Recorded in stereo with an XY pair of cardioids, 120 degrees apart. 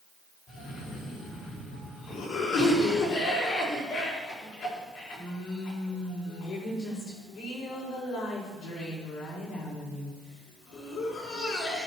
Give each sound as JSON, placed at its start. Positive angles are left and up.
{"t": 0.5, "sound": "a cough", "azimuth_deg": 70, "distance_m": 5.0}